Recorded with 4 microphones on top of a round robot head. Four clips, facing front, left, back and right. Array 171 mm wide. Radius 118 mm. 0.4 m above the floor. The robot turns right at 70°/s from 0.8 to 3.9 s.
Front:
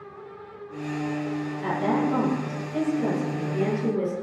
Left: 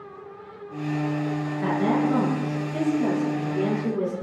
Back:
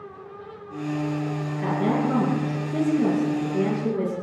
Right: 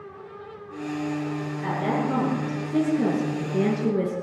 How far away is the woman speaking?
About 7 m.